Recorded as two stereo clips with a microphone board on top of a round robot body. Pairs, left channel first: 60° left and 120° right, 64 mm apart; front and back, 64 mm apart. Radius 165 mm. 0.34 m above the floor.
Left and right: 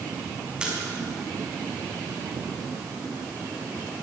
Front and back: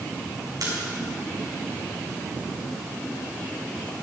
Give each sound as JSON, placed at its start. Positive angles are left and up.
{"t": 0.6, "sound": "a splash", "azimuth_deg": 165, "distance_m": 5.0}